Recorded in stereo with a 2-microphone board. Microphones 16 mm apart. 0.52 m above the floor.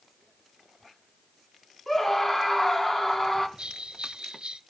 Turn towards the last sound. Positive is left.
turn(degrees=-60)  # may be behind; listen again after turning